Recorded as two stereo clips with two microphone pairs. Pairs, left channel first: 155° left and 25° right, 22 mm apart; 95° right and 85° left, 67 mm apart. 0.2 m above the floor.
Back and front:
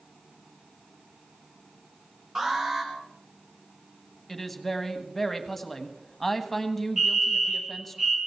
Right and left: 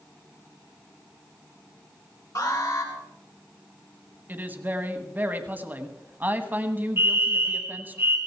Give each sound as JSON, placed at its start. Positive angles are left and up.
{"t": 2.4, "sound": "an alarm", "azimuth_deg": -90, "distance_m": 4.0}
{"t": 4.3, "sound": "a woman speaking", "azimuth_deg": 80, "distance_m": 1.2}
{"t": 7.0, "sound": "a fire alarm", "azimuth_deg": 40, "distance_m": 3.0}